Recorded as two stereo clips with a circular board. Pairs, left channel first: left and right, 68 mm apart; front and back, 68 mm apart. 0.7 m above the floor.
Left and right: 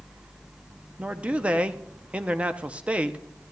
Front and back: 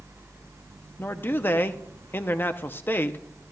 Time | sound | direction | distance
1.0 | a man speaking | 30° right | 0.6 m